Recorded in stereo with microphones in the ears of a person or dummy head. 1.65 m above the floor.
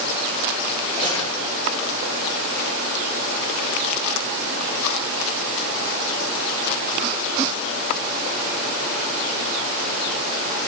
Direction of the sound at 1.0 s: 20° left (ahead or behind).